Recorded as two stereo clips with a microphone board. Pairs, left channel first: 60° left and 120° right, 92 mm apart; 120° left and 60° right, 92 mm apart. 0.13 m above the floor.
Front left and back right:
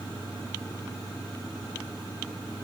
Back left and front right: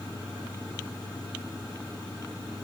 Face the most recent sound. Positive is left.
No sound to turn to.